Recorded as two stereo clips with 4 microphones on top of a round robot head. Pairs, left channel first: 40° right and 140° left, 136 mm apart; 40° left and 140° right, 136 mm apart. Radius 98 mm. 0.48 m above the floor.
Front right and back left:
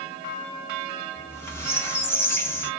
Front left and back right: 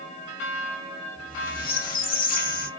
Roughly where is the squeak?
Ahead left.